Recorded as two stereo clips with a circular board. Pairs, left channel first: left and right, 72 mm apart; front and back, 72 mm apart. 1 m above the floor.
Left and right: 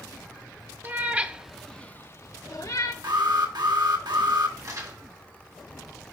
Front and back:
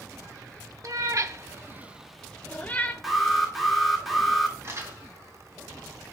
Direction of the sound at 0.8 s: 150° right.